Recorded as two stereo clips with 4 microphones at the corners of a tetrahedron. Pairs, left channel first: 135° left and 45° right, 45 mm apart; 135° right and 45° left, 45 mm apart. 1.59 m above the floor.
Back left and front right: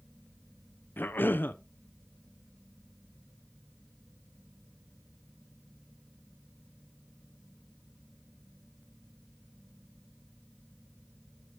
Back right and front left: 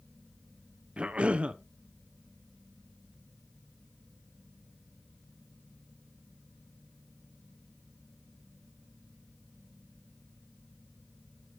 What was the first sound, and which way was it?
A cough, 105° left.